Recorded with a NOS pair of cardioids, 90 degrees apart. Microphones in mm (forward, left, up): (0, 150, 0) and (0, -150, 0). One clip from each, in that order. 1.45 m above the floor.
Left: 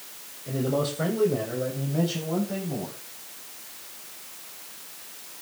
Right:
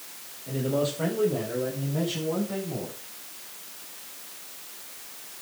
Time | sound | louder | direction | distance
0.5 | a man speaking | even | 20° left | 6.5 m